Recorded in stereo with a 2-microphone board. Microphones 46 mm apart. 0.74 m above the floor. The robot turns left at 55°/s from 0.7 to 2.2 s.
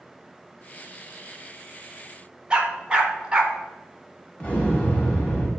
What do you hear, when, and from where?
2.5 s a dog barking: 15° right (ahead or behind), 1.0 m
4.4 s an explosion: 25° left (ahead or behind), 1.7 m